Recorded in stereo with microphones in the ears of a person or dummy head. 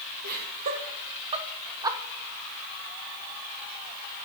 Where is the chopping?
No chopping in this recording.